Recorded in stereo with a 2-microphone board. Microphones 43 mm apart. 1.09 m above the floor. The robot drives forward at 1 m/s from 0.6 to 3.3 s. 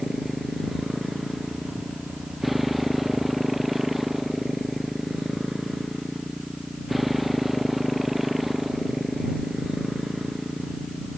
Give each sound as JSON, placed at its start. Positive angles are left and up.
{"t": 0.0, "sound": "a motorcycle", "side_deg": -5}